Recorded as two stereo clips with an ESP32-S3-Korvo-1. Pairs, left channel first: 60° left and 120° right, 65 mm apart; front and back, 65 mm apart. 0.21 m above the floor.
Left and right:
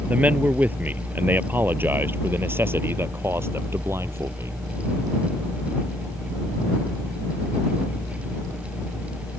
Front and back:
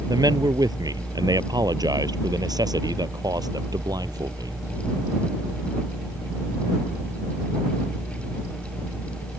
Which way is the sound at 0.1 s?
175° left.